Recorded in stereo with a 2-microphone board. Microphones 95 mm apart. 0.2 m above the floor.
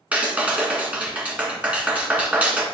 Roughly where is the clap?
Centre.